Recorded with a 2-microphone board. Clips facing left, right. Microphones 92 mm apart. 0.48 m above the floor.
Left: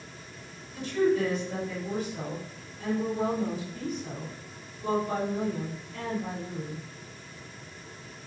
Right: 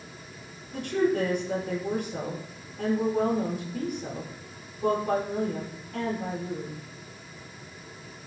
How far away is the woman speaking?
About 8.5 m.